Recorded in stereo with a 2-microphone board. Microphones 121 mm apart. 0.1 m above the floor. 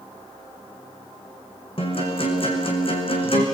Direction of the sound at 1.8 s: 50° left (ahead or behind).